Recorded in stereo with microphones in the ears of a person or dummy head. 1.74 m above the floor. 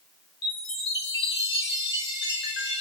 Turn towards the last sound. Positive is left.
turn(degrees=20)  # may be behind; listen again after turning